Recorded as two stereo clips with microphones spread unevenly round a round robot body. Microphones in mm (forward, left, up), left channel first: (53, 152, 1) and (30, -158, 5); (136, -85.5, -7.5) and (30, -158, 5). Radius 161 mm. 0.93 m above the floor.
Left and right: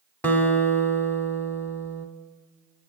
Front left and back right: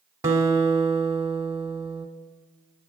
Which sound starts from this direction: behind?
A guitar, at 0.2 s.